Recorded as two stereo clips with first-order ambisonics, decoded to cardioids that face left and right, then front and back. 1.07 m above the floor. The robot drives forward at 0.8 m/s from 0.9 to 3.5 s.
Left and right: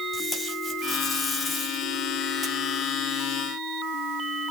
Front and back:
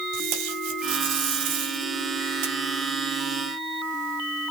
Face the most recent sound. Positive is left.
turn(degrees=165)